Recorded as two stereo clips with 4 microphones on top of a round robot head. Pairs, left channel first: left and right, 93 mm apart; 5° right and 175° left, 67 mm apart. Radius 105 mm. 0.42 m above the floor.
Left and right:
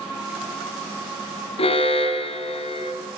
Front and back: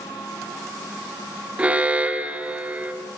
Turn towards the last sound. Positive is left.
turn(degrees=100)